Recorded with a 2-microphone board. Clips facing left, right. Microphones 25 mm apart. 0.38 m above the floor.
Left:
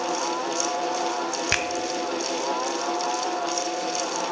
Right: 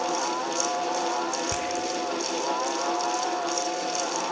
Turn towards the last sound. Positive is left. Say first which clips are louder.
# left 5 dB
turn(degrees=65)  # may be behind; listen again after turning